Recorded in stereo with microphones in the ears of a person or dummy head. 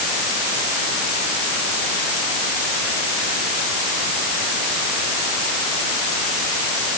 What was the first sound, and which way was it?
Only background noise.